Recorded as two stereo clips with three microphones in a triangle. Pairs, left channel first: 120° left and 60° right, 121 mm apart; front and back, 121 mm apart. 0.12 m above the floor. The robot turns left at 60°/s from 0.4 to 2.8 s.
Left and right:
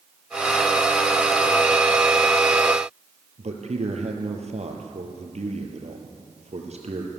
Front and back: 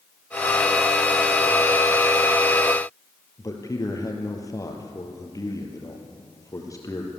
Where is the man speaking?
60° right, 3.5 m.